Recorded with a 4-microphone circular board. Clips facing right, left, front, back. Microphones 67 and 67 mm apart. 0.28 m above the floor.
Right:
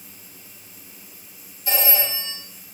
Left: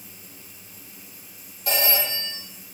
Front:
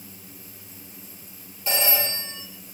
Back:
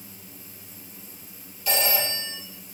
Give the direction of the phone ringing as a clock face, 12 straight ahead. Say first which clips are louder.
Even, back 1 dB; 10 o'clock.